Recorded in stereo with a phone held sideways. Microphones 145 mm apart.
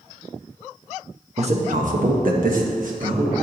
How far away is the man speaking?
About 0.9 m.